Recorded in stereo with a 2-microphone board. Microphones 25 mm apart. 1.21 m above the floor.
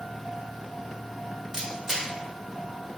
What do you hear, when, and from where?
1.5 s a camera shutter: 15° right (ahead or behind), 1.0 m